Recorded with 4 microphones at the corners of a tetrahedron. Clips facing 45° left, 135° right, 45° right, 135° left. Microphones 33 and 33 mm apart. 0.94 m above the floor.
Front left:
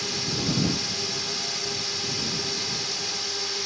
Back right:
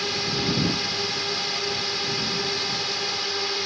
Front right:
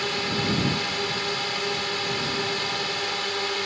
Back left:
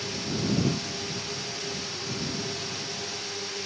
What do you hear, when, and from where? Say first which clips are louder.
0.0 s a drone: back right 3 dB, front right 5 dB; 70° right